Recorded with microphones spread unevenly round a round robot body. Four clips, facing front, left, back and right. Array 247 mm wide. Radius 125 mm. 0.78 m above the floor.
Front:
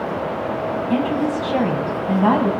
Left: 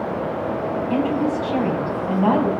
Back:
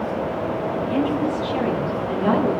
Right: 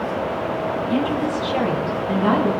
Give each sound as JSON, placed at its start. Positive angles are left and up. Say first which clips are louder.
{"t": 0.9, "sound": "a woman speaking", "louder": "left 2 dB, front 2 dB", "azimuth_deg": 10, "distance_m": 7.0}